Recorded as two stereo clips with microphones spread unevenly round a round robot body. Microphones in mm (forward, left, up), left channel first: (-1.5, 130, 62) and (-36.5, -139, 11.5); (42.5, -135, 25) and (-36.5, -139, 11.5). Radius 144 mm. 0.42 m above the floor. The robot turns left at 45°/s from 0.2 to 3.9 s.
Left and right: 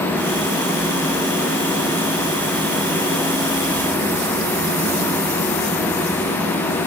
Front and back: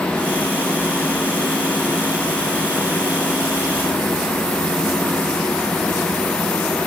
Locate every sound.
Only background noise.